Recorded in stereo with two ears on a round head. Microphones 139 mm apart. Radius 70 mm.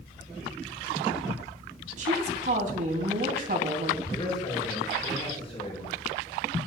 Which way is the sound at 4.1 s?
25° left (ahead or behind).